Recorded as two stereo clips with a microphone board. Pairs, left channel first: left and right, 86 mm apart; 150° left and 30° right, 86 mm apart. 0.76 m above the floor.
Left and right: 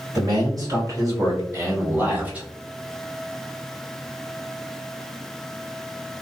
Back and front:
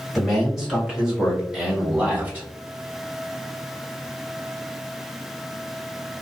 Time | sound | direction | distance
0.1 | a man speaking | 120° right | 1.6 m